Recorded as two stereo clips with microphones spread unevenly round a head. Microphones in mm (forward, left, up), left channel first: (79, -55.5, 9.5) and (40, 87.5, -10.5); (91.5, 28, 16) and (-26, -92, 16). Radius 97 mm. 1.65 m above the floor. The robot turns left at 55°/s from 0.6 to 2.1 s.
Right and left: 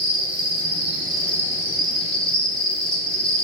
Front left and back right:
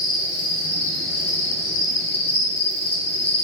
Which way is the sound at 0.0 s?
100° left.